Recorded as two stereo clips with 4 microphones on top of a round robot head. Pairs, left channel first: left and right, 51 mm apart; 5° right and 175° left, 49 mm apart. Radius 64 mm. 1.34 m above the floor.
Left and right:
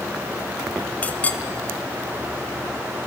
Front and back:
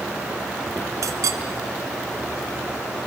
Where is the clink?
155° left, 0.9 m.